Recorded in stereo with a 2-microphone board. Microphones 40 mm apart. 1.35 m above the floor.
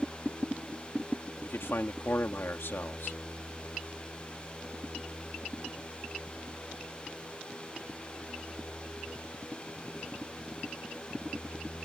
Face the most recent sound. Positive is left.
turn(degrees=80)